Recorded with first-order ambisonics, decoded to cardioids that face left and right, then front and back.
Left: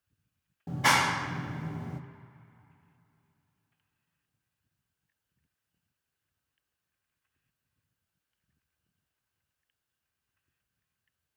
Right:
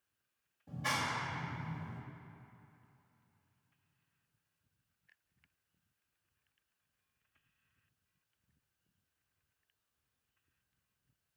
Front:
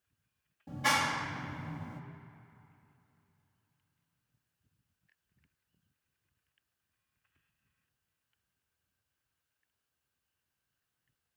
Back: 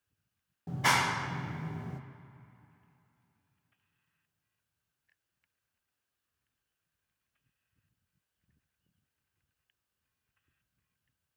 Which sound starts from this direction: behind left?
A clap, at 0.7 s.